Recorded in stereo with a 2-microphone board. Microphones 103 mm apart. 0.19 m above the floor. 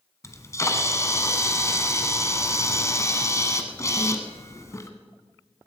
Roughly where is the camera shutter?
Left.